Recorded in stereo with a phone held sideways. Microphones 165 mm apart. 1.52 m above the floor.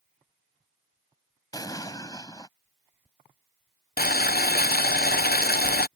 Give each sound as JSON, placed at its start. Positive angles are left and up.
{"t": 1.5, "sound": "an explosion", "side_deg": 20}
{"t": 4.0, "sound": "boiling", "side_deg": 65}